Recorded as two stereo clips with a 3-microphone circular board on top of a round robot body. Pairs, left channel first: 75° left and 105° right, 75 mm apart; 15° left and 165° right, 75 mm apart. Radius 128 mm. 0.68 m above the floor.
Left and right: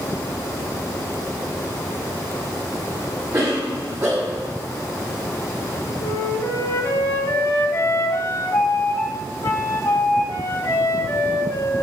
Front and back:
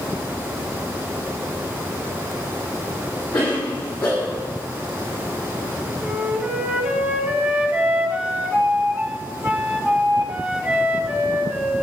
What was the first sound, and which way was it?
A cough, 60° right.